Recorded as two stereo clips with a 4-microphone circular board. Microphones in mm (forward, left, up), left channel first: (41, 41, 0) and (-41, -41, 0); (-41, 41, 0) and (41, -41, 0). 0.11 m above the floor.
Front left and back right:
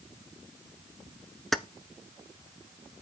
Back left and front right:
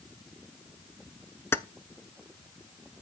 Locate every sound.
1.5 s keys jangling: 130° left, 0.8 m